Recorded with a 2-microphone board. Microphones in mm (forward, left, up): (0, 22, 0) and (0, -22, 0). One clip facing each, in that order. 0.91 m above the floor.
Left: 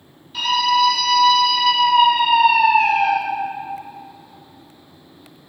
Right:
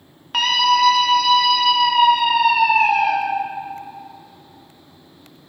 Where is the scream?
70° right (ahead or behind), 1.2 m; by 3.1 s 30° left (ahead or behind), 2.5 m.